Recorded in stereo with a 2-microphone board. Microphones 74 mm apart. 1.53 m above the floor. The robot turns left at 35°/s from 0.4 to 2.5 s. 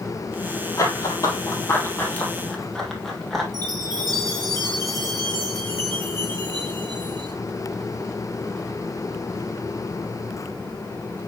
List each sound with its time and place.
0.8 s running footsteps: 45° left (ahead or behind), 2 m; by 3.4 s centre (ahead or behind), 2.5 m
3.5 s a chime: 55° right (ahead or behind), 5.5 m